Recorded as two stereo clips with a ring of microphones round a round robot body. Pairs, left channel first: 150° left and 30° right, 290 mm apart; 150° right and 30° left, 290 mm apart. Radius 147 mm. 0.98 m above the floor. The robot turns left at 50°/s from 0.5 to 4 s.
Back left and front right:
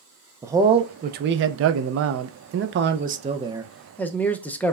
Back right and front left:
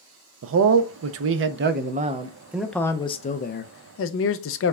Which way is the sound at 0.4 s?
45° left.